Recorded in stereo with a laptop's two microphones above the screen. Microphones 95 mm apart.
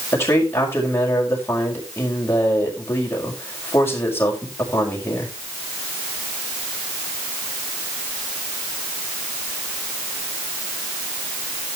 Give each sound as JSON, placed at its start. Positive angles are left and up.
{"t": 0.1, "sound": "a man speaking", "side_deg": 25, "distance_m": 5.0}